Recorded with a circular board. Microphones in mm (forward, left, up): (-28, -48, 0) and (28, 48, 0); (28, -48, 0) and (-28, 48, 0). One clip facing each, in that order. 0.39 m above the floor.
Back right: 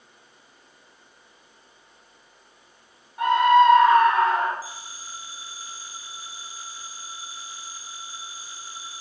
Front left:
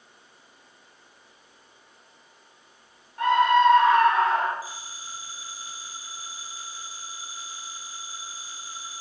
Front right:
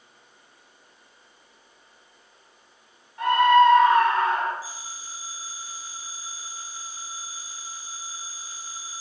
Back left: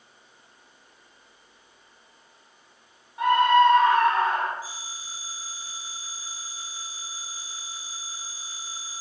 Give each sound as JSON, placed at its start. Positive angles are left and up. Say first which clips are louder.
{"t": 3.2, "sound": "a scream", "louder": "back right 2 dB, front right 1 dB", "azimuth_deg": 175, "distance_m": 0.9}
{"t": 4.6, "sound": "a phone ringing", "louder": "even, even", "azimuth_deg": -170, "distance_m": 1.3}